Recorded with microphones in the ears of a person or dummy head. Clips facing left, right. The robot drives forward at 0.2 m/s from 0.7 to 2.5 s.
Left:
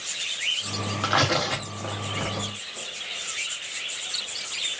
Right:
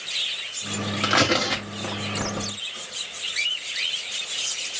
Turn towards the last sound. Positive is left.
turn(degrees=-20)  # may be behind; listen again after turning